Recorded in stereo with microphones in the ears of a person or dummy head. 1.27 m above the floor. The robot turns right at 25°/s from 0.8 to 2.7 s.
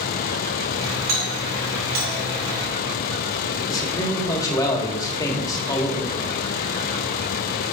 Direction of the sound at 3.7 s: 15° left (ahead or behind).